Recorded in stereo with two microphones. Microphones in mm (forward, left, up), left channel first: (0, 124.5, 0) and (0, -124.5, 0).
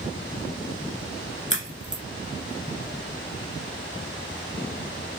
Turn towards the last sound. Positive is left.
turn(degrees=30)  # may be behind; listen again after turning